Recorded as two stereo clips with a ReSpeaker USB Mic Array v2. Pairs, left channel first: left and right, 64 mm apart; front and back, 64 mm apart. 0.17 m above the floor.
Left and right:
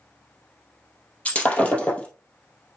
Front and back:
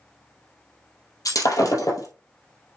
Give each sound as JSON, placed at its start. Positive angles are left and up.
{"t": 1.2, "sound": "breaking glass", "azimuth_deg": 20, "distance_m": 2.5}